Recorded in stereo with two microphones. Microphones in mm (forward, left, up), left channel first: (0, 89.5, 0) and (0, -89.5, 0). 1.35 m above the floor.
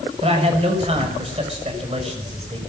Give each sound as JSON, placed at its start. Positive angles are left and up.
{"t": 0.2, "sound": "a man speaking", "side_deg": -35, "distance_m": 6.0}